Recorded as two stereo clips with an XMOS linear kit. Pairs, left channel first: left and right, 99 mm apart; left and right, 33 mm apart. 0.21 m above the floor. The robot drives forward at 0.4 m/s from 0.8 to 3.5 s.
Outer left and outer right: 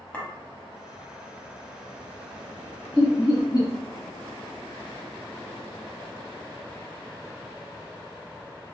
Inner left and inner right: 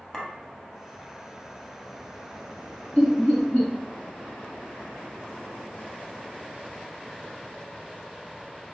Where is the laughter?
45° left (ahead or behind), 1.7 m.